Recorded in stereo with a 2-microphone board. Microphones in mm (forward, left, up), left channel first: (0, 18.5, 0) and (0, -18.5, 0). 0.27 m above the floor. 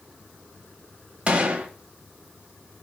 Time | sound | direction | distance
1.3 | a gunshot | 30° right (ahead or behind) | 1.1 m